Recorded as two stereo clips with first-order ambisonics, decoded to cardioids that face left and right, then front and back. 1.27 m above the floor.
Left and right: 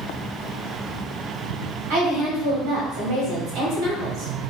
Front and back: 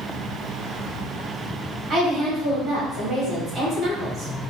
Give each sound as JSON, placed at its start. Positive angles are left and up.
{"t": 1.9, "sound": "a woman speaking", "azimuth_deg": -105, "distance_m": 1.8}